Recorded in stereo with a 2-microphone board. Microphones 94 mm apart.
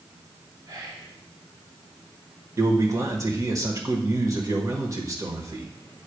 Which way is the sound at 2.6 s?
35° right (ahead or behind).